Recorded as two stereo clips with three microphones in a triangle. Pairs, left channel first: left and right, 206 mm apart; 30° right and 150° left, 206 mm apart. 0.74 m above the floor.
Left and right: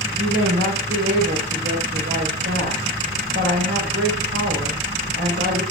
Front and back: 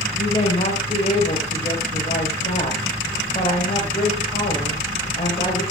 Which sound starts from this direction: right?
A woman speaking, at 0.2 s.